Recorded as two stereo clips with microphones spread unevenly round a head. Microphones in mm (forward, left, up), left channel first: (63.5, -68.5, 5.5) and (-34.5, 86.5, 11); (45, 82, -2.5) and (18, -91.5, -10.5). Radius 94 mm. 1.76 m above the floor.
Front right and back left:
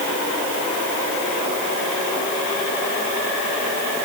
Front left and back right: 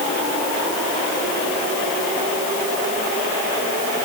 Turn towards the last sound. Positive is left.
No sound to turn to.